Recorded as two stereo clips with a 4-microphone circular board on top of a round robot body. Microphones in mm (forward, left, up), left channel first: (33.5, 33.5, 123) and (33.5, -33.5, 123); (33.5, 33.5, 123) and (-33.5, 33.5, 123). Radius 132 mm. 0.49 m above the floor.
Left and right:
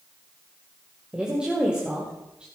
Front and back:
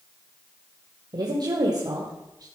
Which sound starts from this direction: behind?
A woman speaking, at 1.1 s.